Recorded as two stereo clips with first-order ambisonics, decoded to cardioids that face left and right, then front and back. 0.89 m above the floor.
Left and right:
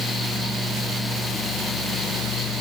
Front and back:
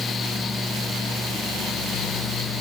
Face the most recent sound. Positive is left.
No sound to turn to.